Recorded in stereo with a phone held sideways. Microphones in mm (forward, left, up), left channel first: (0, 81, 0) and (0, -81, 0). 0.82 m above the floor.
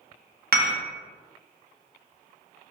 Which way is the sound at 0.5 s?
75° right (ahead or behind).